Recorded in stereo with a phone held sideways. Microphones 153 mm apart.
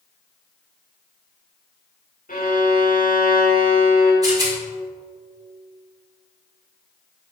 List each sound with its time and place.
2.3 s a violin: 70° left (ahead or behind), 2.5 m
4.2 s a rattle: 25° right (ahead or behind), 2.5 m